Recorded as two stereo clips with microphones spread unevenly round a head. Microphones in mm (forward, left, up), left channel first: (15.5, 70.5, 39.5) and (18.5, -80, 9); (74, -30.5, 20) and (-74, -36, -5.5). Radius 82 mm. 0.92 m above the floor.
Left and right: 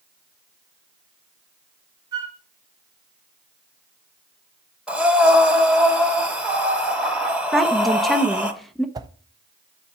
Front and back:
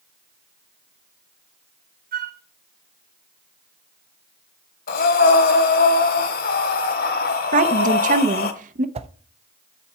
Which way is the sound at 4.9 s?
Straight ahead.